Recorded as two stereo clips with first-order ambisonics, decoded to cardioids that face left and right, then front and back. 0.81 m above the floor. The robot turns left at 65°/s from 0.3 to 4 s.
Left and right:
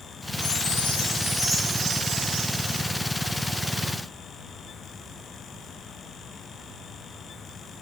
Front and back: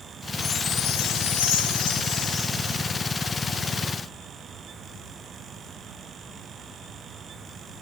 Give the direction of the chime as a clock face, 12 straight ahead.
10 o'clock.